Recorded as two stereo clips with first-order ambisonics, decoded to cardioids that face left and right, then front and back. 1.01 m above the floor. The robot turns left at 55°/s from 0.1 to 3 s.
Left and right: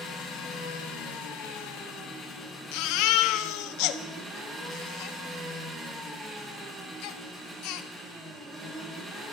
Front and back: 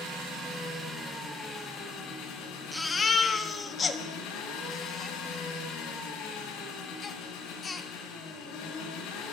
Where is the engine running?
140° left, 5.5 m; by 9.3 s 20° right, 5.5 m.